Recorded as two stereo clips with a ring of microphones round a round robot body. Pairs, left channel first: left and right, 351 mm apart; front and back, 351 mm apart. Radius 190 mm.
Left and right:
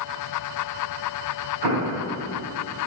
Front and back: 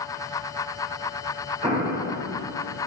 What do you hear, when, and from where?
1.6 s an explosion: 110° right, 1.2 m